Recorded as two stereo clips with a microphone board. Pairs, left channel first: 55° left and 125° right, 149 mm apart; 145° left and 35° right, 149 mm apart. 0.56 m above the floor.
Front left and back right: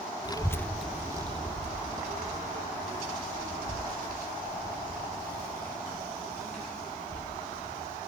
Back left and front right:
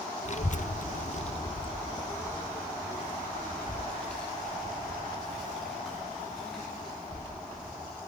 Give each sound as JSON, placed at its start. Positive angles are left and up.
{"t": 0.2, "sound": "a child speaking", "azimuth_deg": 115, "distance_m": 0.6}